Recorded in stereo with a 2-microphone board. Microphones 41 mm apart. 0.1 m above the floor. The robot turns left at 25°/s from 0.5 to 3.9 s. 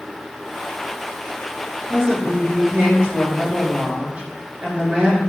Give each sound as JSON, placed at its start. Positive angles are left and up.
{"t": 1.9, "sound": "a woman speaking", "side_deg": -15, "distance_m": 1.2}